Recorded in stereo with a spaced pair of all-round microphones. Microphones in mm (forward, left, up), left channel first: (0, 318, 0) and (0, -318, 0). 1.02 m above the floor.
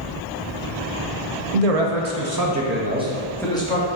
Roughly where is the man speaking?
Right.